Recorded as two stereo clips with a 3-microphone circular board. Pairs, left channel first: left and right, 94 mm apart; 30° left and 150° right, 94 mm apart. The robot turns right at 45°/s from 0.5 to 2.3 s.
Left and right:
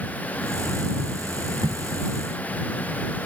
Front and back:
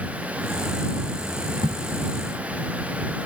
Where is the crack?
120° right; by 1.8 s 115° right.